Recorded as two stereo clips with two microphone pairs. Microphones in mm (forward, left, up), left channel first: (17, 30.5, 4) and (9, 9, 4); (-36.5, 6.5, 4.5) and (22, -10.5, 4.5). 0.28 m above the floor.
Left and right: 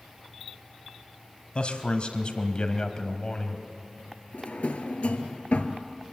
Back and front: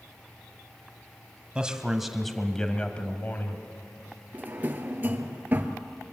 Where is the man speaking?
55° left, 2 m; by 3.6 s 130° left, 2 m.